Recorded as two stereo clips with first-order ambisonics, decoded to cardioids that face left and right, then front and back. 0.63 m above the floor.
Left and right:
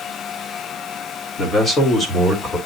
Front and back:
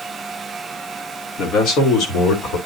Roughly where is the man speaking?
Ahead left.